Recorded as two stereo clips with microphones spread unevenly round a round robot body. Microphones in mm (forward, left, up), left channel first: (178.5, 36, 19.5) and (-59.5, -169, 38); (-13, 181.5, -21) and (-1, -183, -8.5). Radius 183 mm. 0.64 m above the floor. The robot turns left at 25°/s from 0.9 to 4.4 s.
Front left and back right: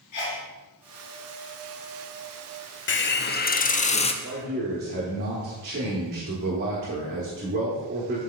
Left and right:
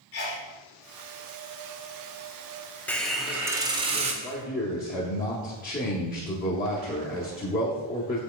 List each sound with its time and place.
0.1 s a sneeze: 40° left, 2 m
2.9 s a hiss: 10° left, 0.7 m; by 4.1 s 20° right, 0.7 m
4.2 s a man speaking: 160° left, 1.0 m; by 8.2 s 155° left, 1.0 m